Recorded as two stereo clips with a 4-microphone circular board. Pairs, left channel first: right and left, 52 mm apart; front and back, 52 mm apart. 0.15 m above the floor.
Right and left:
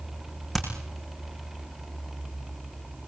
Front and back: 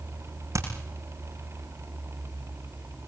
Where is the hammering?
175° left, 6.5 m.